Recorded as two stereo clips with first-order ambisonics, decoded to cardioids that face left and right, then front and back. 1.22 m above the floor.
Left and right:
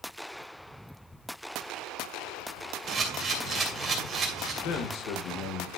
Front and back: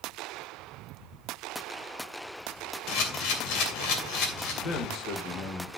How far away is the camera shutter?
About 2.5 m.